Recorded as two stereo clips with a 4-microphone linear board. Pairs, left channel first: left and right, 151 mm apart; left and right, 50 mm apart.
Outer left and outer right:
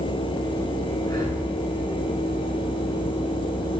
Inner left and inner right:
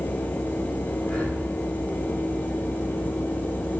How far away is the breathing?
About 8 m.